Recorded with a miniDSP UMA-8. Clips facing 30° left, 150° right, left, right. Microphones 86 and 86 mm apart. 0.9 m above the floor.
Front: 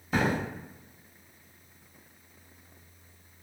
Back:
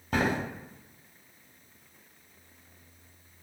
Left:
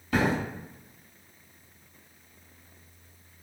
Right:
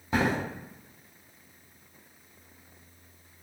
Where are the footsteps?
150° right, 1.4 m.